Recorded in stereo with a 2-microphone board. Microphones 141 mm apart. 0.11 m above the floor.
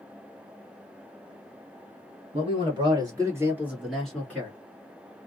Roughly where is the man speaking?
Right.